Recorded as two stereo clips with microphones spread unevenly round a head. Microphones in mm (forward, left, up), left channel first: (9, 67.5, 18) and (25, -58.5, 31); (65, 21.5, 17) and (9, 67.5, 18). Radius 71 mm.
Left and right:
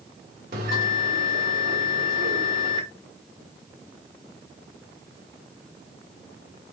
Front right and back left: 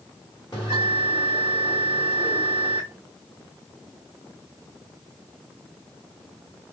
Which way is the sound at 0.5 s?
105° right.